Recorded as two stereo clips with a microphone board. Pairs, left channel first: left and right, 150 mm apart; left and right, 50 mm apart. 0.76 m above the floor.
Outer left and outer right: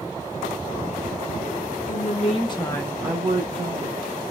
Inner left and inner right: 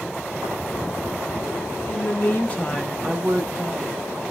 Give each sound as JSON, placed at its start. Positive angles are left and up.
{"t": 1.9, "sound": "a woman speaking", "side_deg": 55, "distance_m": 1.1}